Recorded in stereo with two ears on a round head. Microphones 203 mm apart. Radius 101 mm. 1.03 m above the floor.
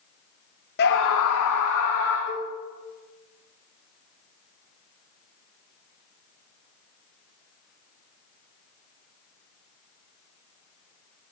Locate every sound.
0.8 s a scream: 45° left (ahead or behind), 0.8 m; by 2.2 s 75° left (ahead or behind), 2 m
2.3 s a cowbell: 35° left (ahead or behind), 7.5 m